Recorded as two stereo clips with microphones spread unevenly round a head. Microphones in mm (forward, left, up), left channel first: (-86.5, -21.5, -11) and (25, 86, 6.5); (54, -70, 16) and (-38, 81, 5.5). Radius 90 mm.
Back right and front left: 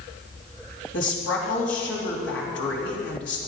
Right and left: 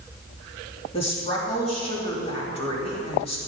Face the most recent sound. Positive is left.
turn(degrees=-120)